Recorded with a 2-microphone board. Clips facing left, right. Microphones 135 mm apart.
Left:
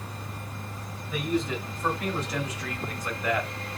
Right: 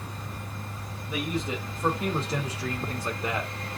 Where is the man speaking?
20° right (ahead or behind), 2 m.